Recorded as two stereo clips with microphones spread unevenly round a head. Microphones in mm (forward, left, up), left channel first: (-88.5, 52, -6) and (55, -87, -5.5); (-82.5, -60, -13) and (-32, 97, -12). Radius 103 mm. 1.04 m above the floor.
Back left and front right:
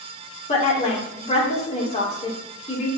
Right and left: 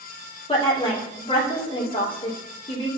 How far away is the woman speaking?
About 2.5 m.